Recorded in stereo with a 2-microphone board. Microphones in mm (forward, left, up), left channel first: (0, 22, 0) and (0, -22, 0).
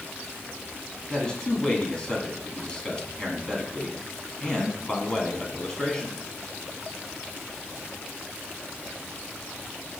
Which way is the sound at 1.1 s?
20° left (ahead or behind).